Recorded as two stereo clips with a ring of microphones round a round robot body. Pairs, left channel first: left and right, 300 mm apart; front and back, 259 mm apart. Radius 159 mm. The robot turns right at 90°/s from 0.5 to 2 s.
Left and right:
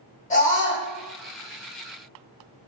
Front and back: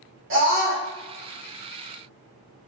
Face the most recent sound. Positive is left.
turn(degrees=-75)